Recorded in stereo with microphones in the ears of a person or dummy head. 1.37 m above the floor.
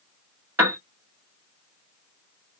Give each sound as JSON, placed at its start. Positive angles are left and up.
{"t": 0.6, "sound": "a piano", "side_deg": -10, "distance_m": 0.9}